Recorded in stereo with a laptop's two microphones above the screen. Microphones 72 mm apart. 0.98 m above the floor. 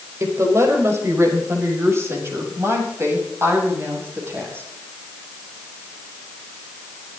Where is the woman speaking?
45° right (ahead or behind), 5 m; by 4.7 s 35° right (ahead or behind), 8 m.